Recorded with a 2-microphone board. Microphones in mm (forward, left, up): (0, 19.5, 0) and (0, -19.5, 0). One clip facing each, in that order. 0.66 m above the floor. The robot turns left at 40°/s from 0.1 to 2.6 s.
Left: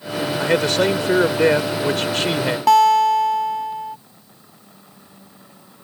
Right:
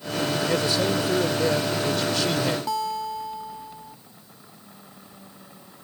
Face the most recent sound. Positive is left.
turn(degrees=85)